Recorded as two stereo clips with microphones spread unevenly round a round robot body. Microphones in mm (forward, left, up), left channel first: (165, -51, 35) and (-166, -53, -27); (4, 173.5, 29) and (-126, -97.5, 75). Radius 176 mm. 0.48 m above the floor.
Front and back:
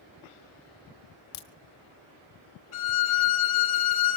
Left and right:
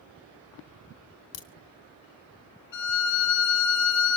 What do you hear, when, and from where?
1.3 s a crack: 30° left, 2.5 m
2.7 s a violin: 5° left, 3 m